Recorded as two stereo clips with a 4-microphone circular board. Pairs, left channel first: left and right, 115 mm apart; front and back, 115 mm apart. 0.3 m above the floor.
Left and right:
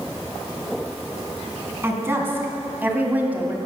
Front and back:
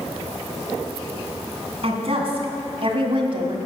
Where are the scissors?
No scissors in this recording.